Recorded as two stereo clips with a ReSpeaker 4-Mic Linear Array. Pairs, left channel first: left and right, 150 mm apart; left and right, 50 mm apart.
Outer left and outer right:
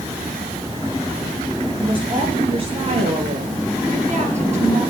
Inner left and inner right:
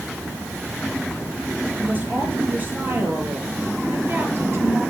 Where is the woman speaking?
35° right (ahead or behind), 9 m; by 4.8 s 45° right (ahead or behind), 7 m.